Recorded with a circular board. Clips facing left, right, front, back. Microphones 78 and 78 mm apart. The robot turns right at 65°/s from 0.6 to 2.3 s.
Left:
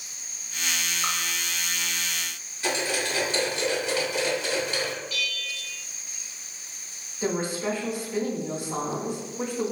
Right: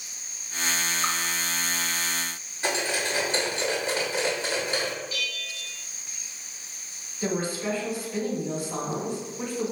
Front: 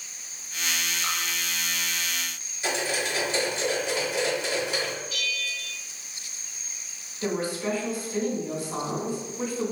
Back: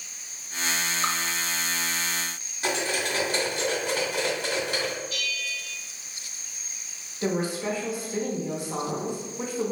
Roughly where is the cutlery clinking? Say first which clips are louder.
Even, back 1 dB; behind right.